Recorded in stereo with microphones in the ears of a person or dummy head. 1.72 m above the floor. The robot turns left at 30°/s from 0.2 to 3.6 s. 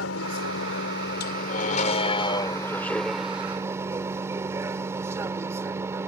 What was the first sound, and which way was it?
A vehicle, 85° left.